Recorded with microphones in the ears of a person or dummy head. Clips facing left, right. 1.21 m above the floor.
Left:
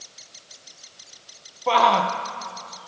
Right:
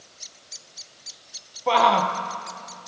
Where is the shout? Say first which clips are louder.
Even; centre (ahead or behind), 1.0 m.